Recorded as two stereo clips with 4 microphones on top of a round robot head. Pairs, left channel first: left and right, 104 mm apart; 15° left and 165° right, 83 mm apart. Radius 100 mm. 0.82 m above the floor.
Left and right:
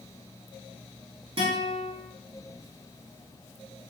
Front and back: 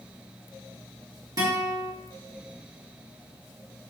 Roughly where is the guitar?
Behind right.